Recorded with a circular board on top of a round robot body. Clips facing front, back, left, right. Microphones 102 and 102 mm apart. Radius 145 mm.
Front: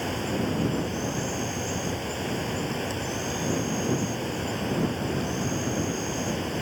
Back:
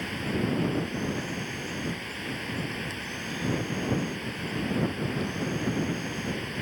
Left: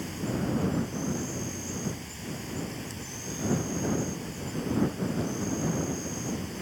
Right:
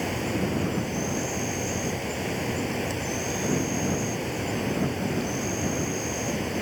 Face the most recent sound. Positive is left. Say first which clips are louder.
# front 2 dB, right 4 dB
turn(degrees=-60)